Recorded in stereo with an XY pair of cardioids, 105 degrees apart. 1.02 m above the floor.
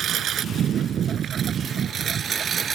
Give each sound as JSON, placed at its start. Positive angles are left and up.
{"t": 0.0, "sound": "a lawn mower", "azimuth_deg": -65}